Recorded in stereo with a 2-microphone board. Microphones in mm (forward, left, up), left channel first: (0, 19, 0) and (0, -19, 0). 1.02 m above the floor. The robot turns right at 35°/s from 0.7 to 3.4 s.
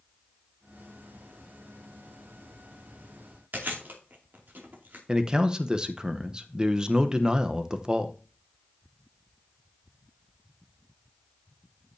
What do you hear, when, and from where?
3.5 s chewing: 50° right (ahead or behind), 2.5 m
5.1 s a man speaking: 20° right (ahead or behind), 0.8 m